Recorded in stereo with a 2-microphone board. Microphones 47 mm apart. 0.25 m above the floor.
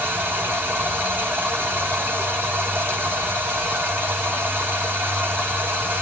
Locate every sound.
0.0 s running water: 35° right (ahead or behind), 8.5 m